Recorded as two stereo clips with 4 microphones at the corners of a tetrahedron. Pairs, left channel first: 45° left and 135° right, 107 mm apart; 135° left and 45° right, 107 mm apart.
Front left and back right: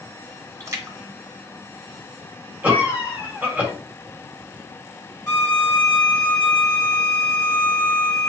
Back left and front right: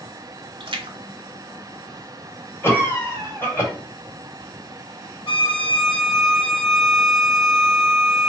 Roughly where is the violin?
Left.